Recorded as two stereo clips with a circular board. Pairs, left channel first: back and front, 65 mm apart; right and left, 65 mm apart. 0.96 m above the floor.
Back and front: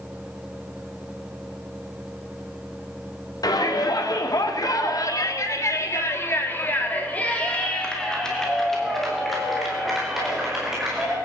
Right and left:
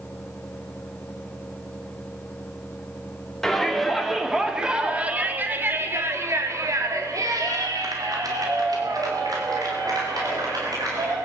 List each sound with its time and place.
3.4 s a shout: 175° right, 2.5 m; by 11.2 s 80° left, 4.5 m